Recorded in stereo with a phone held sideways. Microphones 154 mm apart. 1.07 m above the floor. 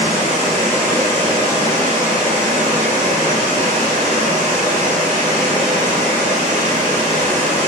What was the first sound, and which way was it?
Running water, 45° right (ahead or behind).